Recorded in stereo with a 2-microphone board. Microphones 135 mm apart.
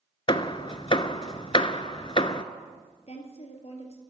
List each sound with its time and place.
0.3 s hammering: 40° left (ahead or behind), 0.5 m
3.1 s a woman speaking: 50° left (ahead or behind), 2.5 m